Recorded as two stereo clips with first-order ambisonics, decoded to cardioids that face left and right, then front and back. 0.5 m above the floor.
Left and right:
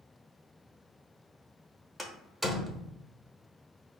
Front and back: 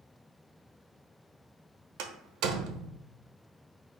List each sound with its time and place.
2.0 s a door slam: 175° right, 0.9 m